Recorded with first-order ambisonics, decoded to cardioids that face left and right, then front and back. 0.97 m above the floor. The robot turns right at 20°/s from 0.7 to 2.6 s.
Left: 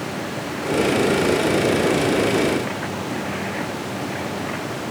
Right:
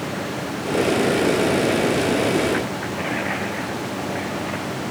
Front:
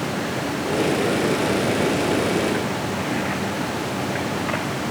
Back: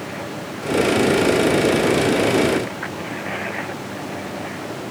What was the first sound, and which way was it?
Only background noise.